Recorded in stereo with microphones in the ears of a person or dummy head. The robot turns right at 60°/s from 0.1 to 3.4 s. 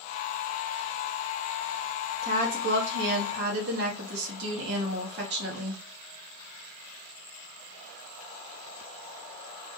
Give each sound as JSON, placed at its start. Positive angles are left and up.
{"t": 2.2, "sound": "a woman speaking", "azimuth_deg": -145, "distance_m": 0.8}